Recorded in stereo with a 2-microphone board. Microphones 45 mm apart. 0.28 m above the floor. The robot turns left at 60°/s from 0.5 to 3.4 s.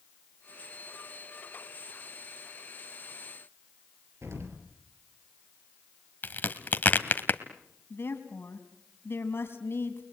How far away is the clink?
No clink in this recording.